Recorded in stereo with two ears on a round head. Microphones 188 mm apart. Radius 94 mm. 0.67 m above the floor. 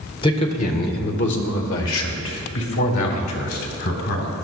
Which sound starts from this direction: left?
A man speaking, at 0.2 s.